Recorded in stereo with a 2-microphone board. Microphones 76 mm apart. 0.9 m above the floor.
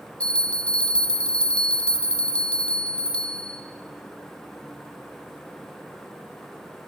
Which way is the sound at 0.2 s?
15° left (ahead or behind).